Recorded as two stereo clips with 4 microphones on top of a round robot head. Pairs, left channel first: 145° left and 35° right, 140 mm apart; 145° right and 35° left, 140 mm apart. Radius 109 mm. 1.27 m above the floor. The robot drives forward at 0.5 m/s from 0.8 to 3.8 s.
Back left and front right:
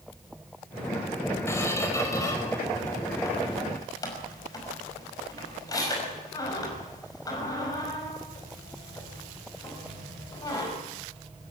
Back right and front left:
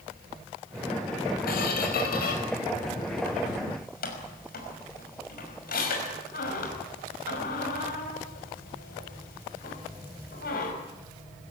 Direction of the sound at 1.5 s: 145° right.